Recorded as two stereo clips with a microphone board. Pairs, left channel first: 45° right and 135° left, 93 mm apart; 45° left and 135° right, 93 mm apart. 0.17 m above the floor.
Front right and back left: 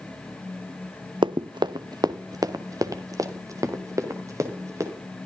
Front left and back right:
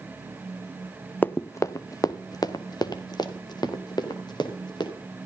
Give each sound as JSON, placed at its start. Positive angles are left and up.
{"t": 1.2, "sound": "running footsteps", "azimuth_deg": 115, "distance_m": 0.6}